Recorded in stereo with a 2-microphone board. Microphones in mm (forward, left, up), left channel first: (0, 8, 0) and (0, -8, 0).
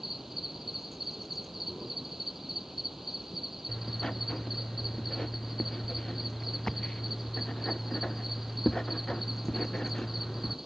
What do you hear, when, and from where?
0.0 s an insect: 20° right (ahead or behind)
3.7 s writing: 55° left (ahead or behind)